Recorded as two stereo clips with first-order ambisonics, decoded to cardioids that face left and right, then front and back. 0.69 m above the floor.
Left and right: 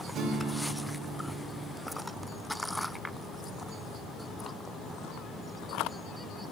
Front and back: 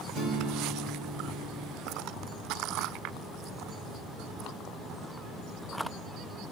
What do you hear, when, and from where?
0.1 s a guitar: 145° right, 2.5 m